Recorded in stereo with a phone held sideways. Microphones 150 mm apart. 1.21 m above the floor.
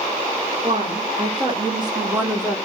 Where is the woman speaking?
55° right (ahead or behind), 2 m; by 2.6 s 10° left (ahead or behind), 0.8 m.